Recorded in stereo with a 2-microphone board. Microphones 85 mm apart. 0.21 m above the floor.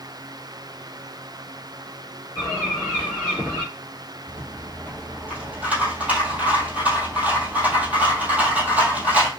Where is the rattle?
15° right (ahead or behind), 1.9 m.